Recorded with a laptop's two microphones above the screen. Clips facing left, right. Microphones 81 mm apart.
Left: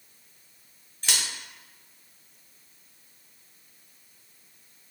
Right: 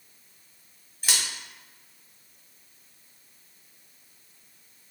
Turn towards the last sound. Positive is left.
turn(degrees=-10)  # may be behind; listen again after turning